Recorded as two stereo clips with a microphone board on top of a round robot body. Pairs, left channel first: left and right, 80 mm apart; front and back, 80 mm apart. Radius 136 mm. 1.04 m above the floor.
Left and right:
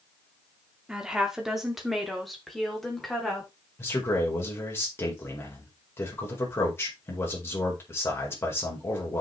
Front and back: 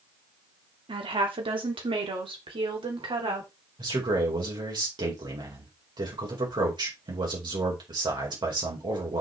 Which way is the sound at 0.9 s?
170° right.